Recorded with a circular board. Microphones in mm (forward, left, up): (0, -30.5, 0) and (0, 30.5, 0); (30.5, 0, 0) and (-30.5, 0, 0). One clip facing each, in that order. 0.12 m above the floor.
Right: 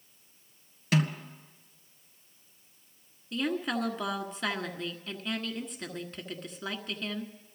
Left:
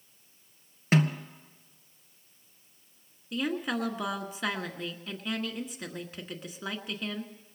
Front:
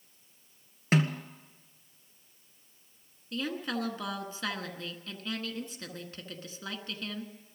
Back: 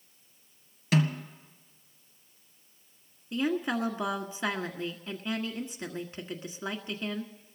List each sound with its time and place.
0.9 s a snare drum: 45° left, 1.6 m
3.3 s a woman speaking: 165° left, 1.5 m